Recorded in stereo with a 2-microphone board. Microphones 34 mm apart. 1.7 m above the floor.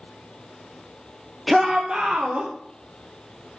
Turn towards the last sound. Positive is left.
turn(degrees=-55)  # may be behind; listen again after turning